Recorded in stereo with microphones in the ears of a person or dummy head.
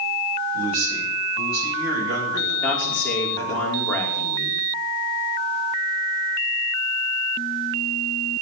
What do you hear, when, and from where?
0.5 s a man speaking: 90° right, 9 m
2.6 s a man speaking: 10° left (ahead or behind), 5.5 m